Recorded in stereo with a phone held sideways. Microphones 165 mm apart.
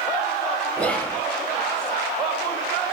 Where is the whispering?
5° left (ahead or behind), 0.7 m.